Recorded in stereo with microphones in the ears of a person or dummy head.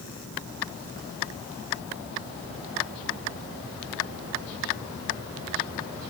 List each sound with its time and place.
Only background noise.